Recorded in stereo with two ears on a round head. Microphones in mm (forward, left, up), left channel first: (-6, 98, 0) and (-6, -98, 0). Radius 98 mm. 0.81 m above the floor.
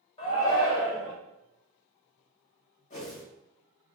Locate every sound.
0.2 s a shout: 25° left (ahead or behind), 1.3 m
2.9 s a whoosh: 35° left (ahead or behind), 1.4 m